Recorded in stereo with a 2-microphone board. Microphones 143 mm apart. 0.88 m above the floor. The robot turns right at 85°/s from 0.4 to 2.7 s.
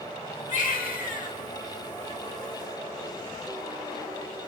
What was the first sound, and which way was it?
A baby crying, 60° left.